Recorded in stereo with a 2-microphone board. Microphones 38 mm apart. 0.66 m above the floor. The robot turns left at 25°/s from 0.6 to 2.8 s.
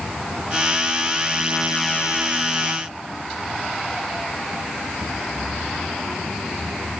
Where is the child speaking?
I don't hear a child speaking.